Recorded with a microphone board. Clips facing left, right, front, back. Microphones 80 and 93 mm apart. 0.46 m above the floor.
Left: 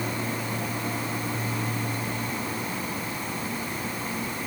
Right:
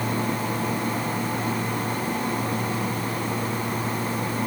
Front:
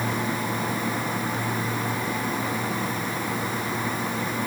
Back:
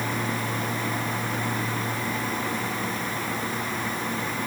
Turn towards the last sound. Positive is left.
No sound to turn to.